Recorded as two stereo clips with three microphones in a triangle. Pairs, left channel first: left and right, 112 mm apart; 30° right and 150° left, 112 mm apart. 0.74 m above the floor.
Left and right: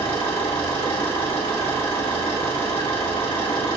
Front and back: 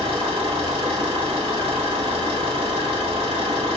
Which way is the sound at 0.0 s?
125° left.